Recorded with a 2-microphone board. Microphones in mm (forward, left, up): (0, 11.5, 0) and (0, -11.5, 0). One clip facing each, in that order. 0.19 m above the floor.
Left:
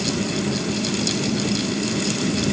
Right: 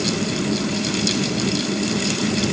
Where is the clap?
No clap in this recording.